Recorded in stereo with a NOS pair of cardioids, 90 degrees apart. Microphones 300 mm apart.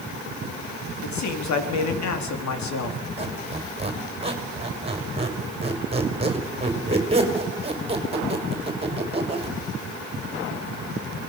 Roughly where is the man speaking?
Ahead left.